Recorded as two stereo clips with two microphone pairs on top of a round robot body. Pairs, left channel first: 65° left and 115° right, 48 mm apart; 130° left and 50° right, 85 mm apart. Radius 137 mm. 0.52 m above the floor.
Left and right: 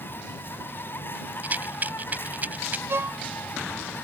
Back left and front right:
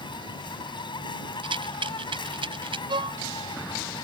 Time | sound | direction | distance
0.0 | an insect | 110° left | ?
1.4 | a rattle | 60° right | ?
2.9 | a violin | 75° right | ?